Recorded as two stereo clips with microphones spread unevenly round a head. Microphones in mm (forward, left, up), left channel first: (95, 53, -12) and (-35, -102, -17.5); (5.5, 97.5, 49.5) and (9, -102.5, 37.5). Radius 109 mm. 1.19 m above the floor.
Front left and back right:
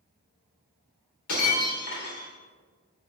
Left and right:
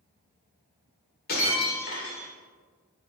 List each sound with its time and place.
1.3 s breaking glass: 50° left, 2 m